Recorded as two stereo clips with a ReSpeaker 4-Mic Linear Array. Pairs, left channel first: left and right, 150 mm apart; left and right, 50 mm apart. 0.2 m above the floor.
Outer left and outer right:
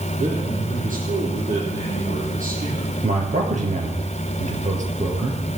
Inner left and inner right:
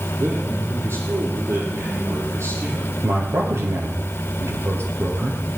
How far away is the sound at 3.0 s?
About 5 m.